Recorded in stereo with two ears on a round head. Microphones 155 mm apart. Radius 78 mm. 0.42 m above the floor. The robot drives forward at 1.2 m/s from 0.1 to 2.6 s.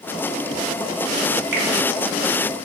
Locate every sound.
1.5 s a finger snap: 75° right (ahead or behind), 3 m